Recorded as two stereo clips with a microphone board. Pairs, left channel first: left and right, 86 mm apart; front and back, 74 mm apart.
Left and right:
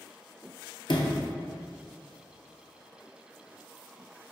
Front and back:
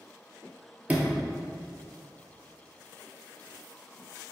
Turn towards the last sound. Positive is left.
turn(degrees=110)